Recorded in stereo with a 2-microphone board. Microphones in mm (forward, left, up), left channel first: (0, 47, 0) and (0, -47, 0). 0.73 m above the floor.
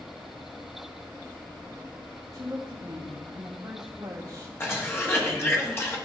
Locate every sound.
2.3 s a woman speaking: 35° right (ahead or behind), 2 m
4.6 s a cough: 25° left (ahead or behind), 1.4 m